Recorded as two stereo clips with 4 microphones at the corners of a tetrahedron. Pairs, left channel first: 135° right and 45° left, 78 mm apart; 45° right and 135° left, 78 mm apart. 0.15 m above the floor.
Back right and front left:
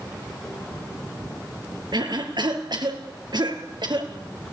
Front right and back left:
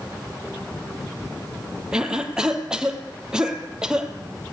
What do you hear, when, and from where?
1.9 s a cough: 55° left, 3.5 m